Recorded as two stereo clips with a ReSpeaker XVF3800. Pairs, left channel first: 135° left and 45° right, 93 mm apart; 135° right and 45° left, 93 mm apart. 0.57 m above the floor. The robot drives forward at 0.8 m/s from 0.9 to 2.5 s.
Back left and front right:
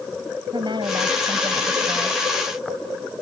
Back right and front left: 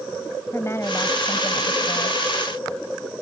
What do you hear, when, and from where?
0.5 s a woman speaking: 75° right; by 2.2 s 100° right